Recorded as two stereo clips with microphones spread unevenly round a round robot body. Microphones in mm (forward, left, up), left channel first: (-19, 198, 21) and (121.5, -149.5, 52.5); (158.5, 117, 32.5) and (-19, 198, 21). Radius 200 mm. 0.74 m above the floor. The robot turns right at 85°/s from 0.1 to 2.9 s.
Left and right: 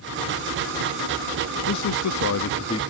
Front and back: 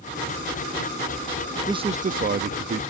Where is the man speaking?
90° left; by 2.8 s 175° right.